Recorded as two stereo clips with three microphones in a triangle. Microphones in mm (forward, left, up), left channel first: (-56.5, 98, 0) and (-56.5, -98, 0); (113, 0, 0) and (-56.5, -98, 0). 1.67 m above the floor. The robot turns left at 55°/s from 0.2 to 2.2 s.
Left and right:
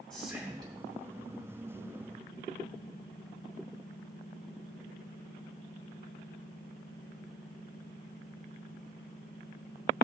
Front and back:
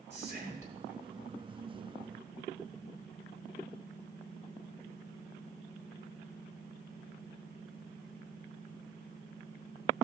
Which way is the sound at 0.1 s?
Straight ahead.